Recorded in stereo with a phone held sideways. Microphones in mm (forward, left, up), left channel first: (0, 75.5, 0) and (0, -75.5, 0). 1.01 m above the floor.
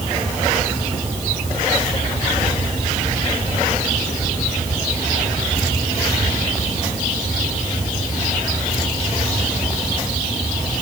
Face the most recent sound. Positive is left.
No sound to turn to.